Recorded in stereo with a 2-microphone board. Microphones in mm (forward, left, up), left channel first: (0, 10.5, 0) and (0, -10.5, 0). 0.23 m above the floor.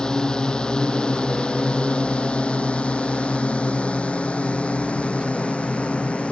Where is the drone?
40° left (ahead or behind); by 6.3 s 80° left.